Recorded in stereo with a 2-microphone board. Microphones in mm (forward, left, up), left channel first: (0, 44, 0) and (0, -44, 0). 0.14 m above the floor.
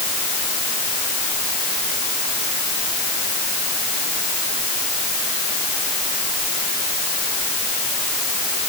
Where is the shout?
No shout in this recording.